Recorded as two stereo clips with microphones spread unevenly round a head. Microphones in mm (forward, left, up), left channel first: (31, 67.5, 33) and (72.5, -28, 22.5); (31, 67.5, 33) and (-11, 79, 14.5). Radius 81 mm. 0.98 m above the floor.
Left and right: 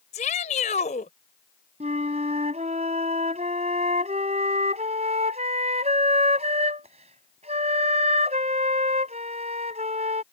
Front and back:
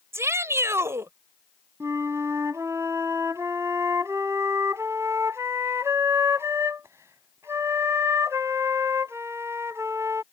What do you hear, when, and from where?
0.1 s a shout: 155° left
1.8 s a flute: 120° right